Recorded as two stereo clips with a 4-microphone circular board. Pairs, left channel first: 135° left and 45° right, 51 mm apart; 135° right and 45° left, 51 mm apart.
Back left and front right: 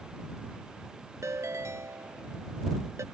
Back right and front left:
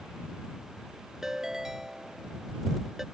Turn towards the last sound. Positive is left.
turn(degrees=-35)